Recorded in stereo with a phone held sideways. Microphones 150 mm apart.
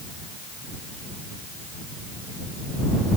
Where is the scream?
I don't hear a scream.